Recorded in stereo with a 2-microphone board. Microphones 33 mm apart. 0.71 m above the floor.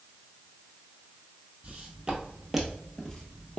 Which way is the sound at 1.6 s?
35° right (ahead or behind).